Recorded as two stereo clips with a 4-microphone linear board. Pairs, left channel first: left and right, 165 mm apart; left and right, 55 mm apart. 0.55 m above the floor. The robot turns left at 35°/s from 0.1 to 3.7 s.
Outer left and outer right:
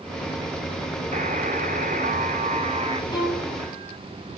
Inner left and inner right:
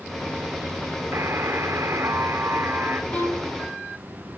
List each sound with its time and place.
1.1 s a buzzer: 70° right, 1.2 m; by 3.0 s 135° right, 1.2 m
3.1 s a violin: 30° left (ahead or behind), 3.5 m; by 3.6 s 10° left (ahead or behind), 3.5 m